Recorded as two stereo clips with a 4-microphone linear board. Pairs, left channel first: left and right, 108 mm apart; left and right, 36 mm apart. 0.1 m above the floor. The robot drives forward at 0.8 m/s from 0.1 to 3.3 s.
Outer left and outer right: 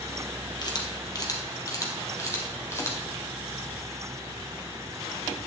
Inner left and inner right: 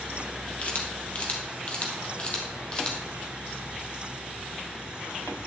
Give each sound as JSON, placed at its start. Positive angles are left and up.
{"t": 0.6, "sound": "a camera shutter", "side_deg": 40, "distance_m": 2.5}